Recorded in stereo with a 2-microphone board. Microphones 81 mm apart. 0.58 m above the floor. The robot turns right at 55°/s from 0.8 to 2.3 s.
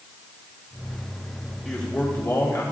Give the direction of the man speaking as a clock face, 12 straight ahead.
12 o'clock.